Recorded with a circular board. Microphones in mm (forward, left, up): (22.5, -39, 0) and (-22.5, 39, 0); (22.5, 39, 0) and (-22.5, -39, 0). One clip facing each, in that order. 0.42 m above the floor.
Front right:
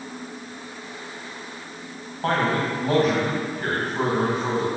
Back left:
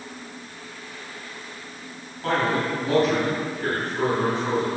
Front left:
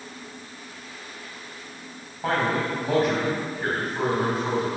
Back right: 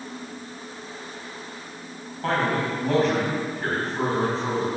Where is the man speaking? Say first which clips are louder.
Front right 1 dB, even; 20° right, 3 m.